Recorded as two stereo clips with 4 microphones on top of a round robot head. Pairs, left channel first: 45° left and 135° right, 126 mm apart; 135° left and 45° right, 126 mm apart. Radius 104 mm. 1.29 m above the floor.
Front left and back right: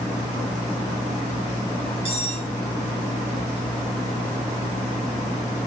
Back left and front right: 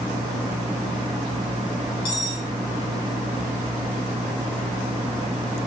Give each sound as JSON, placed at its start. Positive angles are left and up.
{"t": 2.0, "sound": "cutlery clinking", "azimuth_deg": -175, "distance_m": 1.0}